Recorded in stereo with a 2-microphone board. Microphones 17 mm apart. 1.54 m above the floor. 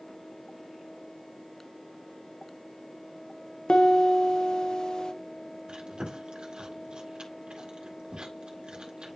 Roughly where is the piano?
Left.